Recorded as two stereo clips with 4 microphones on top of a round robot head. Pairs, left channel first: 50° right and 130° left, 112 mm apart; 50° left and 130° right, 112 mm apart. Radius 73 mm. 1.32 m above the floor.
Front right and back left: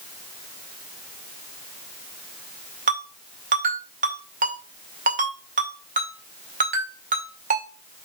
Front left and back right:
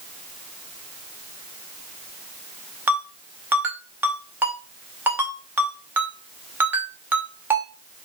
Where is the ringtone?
155° left, 2 m.